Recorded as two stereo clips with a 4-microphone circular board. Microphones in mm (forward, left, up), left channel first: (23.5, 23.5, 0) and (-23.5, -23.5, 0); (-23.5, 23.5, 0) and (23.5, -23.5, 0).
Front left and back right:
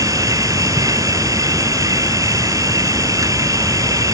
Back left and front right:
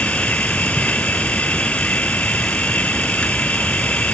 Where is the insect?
155° right.